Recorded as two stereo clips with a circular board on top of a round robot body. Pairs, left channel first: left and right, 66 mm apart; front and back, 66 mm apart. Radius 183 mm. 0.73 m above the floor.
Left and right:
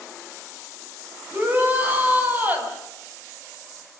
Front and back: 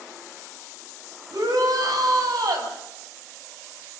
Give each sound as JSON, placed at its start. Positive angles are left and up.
{"t": 1.3, "sound": "a shout", "azimuth_deg": -155, "distance_m": 6.5}